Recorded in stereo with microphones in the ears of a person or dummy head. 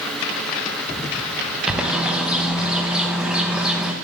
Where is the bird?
10° right (ahead or behind), 0.6 m.